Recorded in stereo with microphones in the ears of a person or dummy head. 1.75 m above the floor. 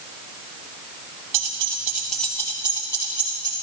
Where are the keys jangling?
35° right (ahead or behind), 1.0 m; by 3.5 s 30° left (ahead or behind), 2.5 m.